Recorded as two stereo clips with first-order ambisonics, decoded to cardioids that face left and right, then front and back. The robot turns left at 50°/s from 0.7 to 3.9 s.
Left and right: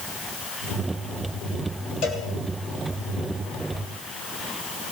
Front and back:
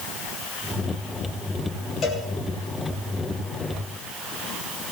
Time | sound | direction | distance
2.0 | a cowbell | 65° left | 3 m